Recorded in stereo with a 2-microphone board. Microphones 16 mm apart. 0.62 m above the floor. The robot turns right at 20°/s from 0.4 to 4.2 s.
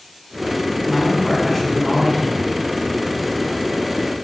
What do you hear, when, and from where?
0.8 s a man speaking: 175° left, 1.7 m; by 2.5 s 150° right, 1.7 m